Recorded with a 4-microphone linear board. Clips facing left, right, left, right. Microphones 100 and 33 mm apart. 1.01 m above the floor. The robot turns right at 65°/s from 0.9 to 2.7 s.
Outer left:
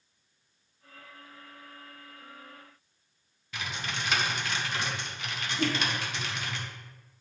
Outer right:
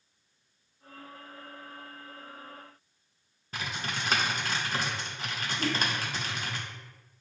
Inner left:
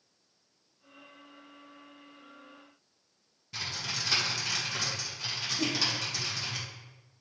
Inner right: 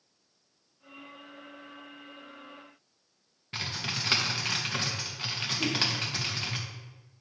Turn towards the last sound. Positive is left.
turn(degrees=65)  # may be behind; listen again after turning